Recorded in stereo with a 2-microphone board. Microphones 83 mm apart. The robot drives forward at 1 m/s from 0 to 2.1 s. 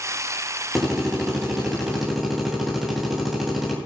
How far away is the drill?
About 9 m.